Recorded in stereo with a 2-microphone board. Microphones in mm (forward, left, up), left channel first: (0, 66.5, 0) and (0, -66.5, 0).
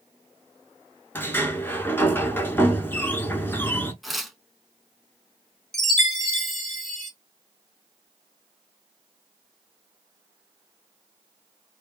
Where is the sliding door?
15° left (ahead or behind), 0.5 m.